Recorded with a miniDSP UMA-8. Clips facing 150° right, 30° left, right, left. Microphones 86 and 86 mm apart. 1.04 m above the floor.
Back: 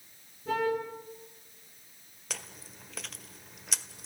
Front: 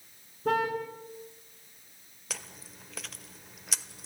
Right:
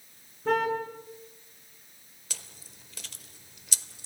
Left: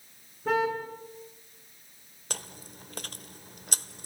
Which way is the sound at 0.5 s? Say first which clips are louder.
Front 1 dB, right 1 dB; 5° left.